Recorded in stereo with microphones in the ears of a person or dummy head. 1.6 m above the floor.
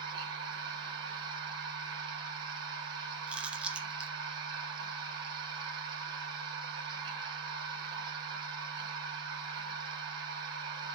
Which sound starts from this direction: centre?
Chewing, at 3.3 s.